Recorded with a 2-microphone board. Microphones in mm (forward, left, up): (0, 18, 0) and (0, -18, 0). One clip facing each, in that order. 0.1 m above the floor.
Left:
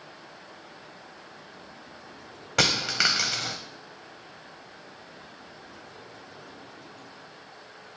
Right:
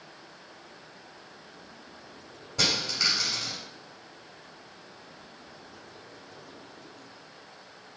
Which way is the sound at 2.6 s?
80° left.